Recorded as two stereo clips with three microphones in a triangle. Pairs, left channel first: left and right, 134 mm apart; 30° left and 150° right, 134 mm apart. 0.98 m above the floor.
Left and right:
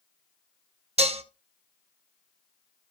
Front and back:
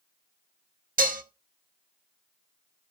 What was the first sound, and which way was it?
Dishes clattering, 135° right.